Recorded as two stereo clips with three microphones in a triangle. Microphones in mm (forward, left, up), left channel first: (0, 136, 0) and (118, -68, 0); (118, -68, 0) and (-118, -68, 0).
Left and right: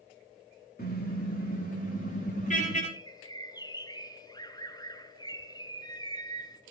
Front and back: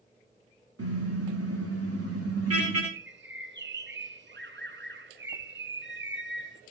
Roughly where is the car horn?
Behind.